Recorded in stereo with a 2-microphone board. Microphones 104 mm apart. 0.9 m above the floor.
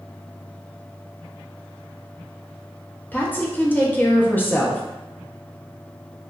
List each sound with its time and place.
3.1 s a woman speaking: 20° left (ahead or behind), 0.7 m